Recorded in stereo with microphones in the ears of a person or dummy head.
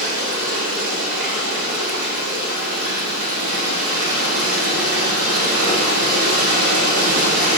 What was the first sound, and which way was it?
Running water, 65° right (ahead or behind).